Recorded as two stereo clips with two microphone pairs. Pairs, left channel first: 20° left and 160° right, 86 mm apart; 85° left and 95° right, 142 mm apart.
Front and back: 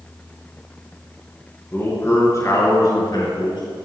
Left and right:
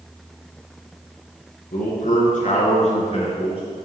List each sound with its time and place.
1.7 s a man speaking: 85° left, 3.5 m; by 3.6 s 40° left, 3 m